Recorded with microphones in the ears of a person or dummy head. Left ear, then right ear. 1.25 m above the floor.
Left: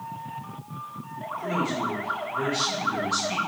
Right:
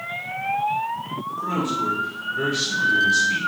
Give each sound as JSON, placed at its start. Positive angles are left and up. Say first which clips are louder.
{"t": 1.4, "sound": "a man speaking", "louder": "right 3 dB", "side_deg": -40, "distance_m": 1.9}